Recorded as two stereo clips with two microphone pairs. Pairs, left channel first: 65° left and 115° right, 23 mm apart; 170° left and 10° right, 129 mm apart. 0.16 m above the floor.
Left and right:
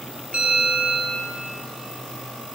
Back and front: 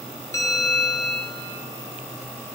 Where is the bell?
125° right, 2 m.